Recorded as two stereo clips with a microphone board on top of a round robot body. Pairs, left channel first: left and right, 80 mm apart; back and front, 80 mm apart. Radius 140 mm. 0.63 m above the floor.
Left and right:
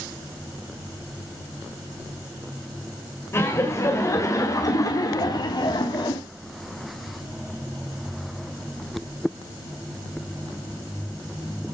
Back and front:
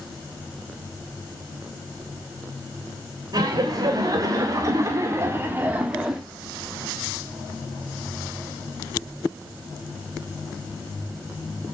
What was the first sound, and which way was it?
Laughter, 35° left.